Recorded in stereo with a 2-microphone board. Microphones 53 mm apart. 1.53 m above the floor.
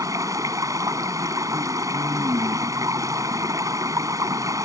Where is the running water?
80° right.